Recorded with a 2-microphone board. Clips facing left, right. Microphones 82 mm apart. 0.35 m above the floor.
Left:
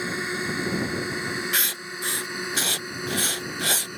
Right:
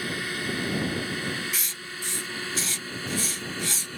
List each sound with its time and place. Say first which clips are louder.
0.0 s a drone: left 3 dB; 20° left (ahead or behind); by 4.0 s 15° left (ahead or behind)
1.5 s writing: left 7 dB; 80° left